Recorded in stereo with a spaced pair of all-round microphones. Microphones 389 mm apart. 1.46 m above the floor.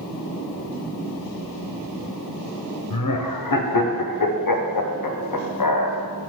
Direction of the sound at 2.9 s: 60° left (ahead or behind).